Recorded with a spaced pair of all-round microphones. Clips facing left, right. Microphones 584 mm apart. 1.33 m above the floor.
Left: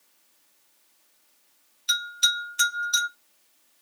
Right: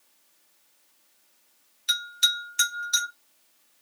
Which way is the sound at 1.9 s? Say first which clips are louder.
Left 3 dB; 45° right (ahead or behind).